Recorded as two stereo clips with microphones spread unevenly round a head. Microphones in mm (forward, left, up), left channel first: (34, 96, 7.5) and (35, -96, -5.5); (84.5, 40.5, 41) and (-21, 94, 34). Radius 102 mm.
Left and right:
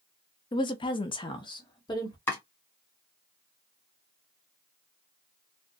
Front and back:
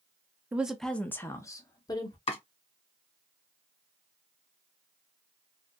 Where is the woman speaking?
90° left, 0.5 m; by 2.2 s 25° left, 1.2 m.